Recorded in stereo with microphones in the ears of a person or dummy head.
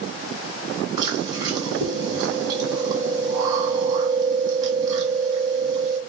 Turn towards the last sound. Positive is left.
turn(degrees=-25)  # may be behind; listen again after turning